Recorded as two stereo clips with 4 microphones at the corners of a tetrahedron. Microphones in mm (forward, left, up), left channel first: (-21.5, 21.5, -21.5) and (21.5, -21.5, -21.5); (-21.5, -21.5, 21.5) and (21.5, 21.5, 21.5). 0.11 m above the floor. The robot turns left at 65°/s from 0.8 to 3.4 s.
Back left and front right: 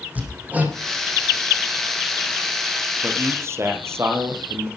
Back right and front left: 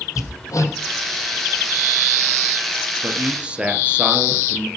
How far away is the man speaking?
About 2.5 m.